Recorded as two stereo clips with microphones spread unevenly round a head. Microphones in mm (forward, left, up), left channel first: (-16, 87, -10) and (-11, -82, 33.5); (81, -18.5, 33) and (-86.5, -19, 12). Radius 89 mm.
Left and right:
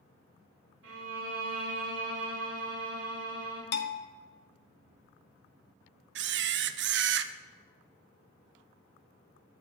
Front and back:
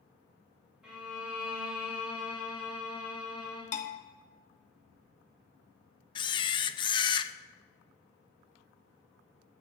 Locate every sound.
0.8 s a violin: 95° right, 4 m
3.7 s a bell: 50° left, 1.0 m
6.2 s a camera shutter: 65° right, 0.5 m